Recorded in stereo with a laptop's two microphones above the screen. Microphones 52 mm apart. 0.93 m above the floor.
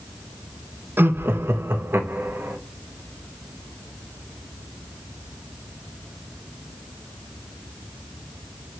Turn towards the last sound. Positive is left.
turn(degrees=-45)  # may be behind; listen again after turning